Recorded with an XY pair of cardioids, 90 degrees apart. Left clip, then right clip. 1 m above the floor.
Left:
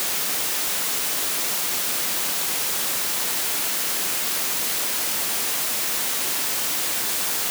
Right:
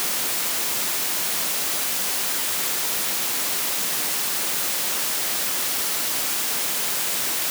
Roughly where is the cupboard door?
I don't hear a cupboard door.